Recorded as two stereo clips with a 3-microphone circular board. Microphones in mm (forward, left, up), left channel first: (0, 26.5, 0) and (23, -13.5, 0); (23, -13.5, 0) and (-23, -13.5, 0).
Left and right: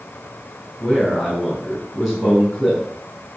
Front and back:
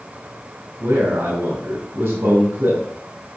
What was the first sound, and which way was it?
A man speaking, 150° right.